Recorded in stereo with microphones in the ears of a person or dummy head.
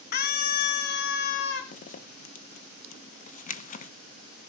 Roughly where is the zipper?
Left.